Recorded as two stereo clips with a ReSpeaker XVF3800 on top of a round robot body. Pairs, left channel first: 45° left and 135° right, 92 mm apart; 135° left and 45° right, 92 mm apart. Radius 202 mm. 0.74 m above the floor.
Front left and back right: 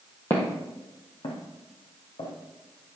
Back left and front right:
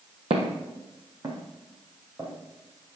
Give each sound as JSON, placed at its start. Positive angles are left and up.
{"t": 0.3, "sound": "footsteps", "azimuth_deg": -20, "distance_m": 1.3}